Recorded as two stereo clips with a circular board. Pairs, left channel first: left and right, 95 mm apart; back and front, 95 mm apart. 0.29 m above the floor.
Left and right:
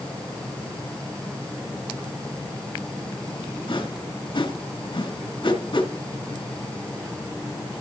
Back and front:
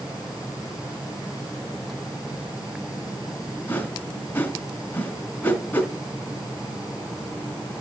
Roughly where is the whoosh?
Behind left.